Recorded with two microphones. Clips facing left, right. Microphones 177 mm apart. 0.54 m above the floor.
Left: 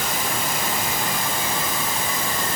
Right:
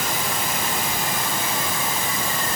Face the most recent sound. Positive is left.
No sound to turn to.